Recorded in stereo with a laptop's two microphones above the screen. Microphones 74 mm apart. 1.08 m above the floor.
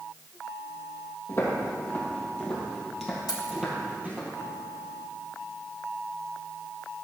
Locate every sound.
1.3 s footsteps: 35° left (ahead or behind), 2.5 m; by 4.3 s 25° right (ahead or behind), 2.0 m
3.3 s keys jangling: 70° left (ahead or behind), 1.5 m